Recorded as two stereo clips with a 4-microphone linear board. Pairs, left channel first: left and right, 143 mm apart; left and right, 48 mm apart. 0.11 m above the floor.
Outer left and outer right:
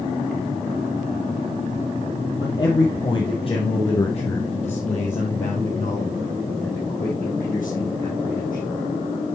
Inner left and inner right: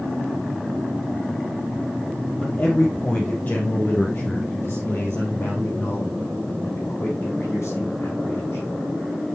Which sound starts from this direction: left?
A man speaking, at 2.4 s.